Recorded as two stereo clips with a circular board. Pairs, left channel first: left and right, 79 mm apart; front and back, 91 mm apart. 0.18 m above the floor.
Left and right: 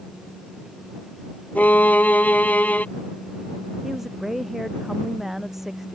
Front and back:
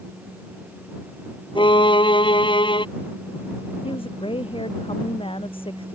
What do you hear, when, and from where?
1.6 s a violin: 20° left
3.8 s a woman speaking: 5° right